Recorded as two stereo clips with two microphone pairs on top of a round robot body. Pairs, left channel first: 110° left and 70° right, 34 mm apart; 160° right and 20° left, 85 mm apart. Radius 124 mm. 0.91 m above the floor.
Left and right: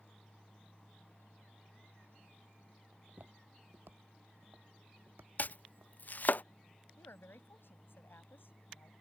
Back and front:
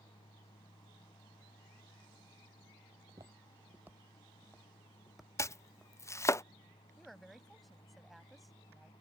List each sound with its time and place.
2.9 s footsteps: 30° right; by 5.9 s 75° right
5.4 s chopping: 140° left
7.0 s a woman speaking: 110° left